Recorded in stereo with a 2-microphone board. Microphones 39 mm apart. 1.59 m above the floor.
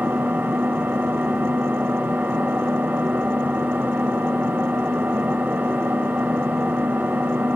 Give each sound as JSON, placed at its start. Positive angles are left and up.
{"t": 0.0, "sound": "an engine running", "side_deg": -65, "distance_m": 6.0}